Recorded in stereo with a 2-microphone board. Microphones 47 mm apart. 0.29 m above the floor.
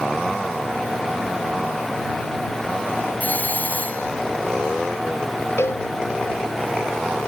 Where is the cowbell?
65° left (ahead or behind).